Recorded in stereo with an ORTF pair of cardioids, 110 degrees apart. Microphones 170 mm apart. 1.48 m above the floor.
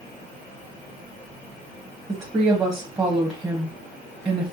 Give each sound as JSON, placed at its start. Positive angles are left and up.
{"t": 2.1, "sound": "a woman speaking", "azimuth_deg": -20, "distance_m": 1.3}